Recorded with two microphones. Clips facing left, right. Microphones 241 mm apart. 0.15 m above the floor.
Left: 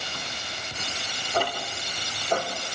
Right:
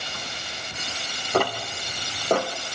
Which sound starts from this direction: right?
Ticking, at 1.3 s.